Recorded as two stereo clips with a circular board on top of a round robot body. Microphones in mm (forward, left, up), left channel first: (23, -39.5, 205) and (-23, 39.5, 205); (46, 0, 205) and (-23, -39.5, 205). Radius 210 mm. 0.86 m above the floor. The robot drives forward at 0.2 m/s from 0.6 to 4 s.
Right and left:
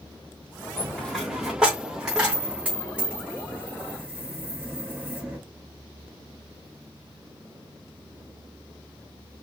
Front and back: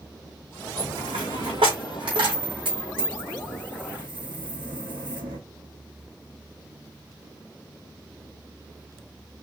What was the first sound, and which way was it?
A dropped coin, 140° right.